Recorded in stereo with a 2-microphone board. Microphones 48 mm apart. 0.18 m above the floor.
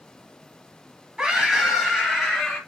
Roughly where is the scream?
Centre.